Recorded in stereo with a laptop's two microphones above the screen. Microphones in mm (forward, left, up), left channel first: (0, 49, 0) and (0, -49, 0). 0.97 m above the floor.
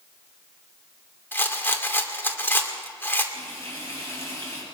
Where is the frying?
25° left (ahead or behind), 7.5 m.